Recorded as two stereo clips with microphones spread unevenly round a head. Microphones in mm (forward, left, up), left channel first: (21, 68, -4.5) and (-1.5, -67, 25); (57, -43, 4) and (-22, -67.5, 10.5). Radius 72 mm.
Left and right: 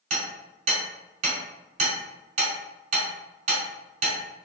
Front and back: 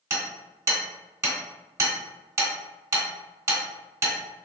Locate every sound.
0.1 s hammering: 120° right, 1.9 m